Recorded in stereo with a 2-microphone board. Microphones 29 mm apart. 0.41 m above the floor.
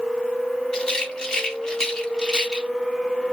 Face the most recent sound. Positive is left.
turn(degrees=30)  # may be behind; listen again after turning